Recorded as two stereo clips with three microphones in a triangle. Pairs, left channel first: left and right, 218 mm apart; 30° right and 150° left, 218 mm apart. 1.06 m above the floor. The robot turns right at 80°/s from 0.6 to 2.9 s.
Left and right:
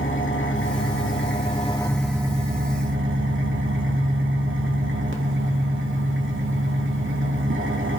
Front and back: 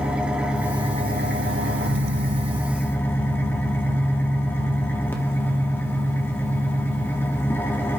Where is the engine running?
65° left, 1.9 m; by 8.0 s 110° right, 1.9 m.